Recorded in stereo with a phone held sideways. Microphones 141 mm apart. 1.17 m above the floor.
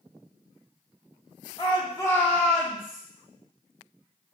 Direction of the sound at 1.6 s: 35° left (ahead or behind).